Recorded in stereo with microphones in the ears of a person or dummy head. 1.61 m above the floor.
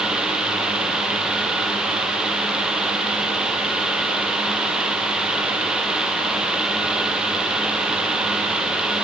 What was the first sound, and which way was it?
Only background noise.